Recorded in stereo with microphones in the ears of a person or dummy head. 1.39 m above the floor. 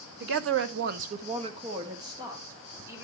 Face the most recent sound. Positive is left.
turn(degrees=-15)  # may be behind; listen again after turning